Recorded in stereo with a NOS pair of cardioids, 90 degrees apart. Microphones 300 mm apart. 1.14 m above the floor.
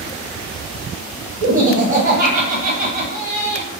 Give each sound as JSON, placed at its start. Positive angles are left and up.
{"t": 1.4, "sound": "laughter", "azimuth_deg": -40, "distance_m": 0.9}